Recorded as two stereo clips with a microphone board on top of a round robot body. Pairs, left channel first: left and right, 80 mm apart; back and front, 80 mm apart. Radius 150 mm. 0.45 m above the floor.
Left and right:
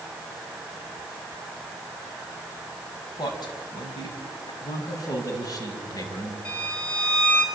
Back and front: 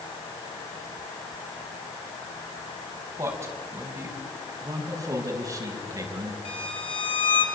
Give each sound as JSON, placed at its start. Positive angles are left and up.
{"t": 3.2, "sound": "a man speaking", "azimuth_deg": 55, "distance_m": 5.5}
{"t": 4.6, "sound": "a man speaking", "azimuth_deg": 45, "distance_m": 5.5}
{"t": 6.5, "sound": "a violin", "azimuth_deg": 170, "distance_m": 3.5}